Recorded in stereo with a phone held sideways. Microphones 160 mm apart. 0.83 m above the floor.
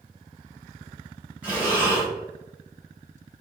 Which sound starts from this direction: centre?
Breathing, at 1.4 s.